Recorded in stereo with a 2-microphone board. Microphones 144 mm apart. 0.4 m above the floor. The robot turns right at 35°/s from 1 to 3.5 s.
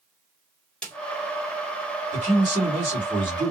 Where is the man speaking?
75° right, 2.5 m; by 3.5 s 30° right, 2.5 m.